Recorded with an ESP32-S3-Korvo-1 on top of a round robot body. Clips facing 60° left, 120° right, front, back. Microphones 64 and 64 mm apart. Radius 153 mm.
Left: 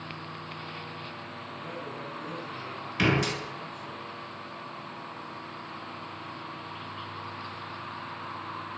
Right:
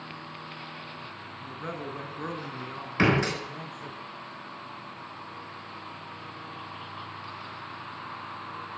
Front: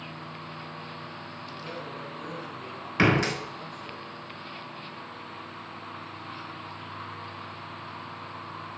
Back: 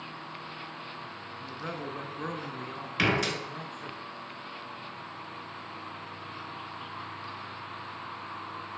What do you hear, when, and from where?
1.4 s a man speaking: 140° right, 6.5 m
3.0 s a door slam: 60° right, 5.5 m